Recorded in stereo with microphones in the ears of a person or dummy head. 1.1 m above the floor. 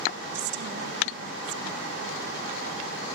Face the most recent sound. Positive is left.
turn(degrees=-60)  # may be behind; listen again after turning